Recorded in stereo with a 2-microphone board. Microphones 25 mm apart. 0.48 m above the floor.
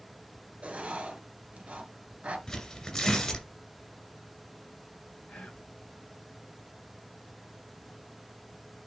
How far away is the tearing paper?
About 2.5 m.